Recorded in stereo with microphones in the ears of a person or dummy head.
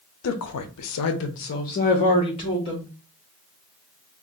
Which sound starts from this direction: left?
A woman speaking, at 0.2 s.